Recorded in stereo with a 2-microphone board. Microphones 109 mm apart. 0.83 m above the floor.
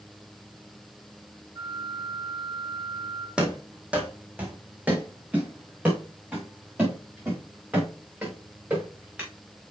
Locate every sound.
1.6 s a flute: 40° right (ahead or behind), 2 m
3.4 s running footsteps: 10° right (ahead or behind), 1.9 m; by 9.3 s 20° right (ahead or behind), 5 m